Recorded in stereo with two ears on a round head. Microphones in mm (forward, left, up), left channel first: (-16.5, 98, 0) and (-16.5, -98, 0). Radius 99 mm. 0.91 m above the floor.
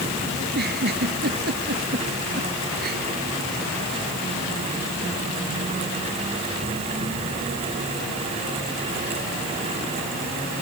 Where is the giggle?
50° right (ahead or behind).